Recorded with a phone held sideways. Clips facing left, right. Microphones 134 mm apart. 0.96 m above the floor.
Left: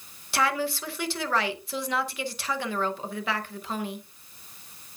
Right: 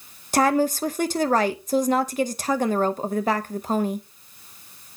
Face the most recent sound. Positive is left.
turn(degrees=-40)  # may be behind; listen again after turning